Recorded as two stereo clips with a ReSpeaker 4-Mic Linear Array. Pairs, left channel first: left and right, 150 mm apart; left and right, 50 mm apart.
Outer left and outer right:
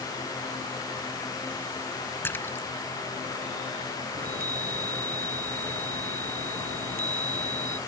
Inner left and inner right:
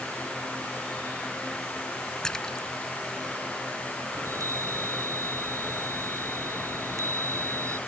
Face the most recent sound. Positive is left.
turn(degrees=-80)